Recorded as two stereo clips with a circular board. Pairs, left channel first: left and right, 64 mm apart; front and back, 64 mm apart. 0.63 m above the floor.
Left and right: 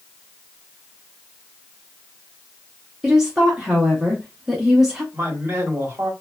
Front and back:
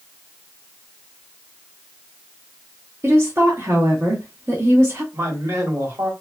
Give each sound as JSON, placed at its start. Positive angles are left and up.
{"t": 3.0, "sound": "a woman speaking", "azimuth_deg": -165, "distance_m": 0.8}
{"t": 5.1, "sound": "a man speaking", "azimuth_deg": -145, "distance_m": 1.4}